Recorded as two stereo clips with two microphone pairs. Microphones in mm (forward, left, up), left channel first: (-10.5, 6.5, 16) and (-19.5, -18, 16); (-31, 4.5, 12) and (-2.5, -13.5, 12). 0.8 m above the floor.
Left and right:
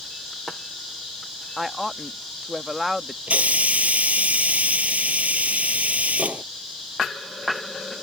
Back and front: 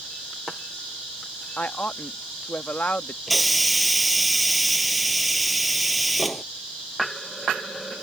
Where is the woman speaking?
170° left.